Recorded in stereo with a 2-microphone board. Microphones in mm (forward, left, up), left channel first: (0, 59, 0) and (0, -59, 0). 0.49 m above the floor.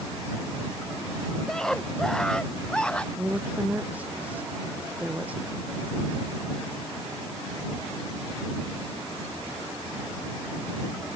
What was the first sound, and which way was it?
A scream, 5° left (ahead or behind).